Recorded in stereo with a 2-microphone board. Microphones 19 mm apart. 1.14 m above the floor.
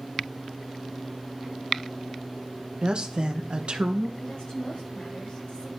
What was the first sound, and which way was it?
A woman speaking, 50° right (ahead or behind).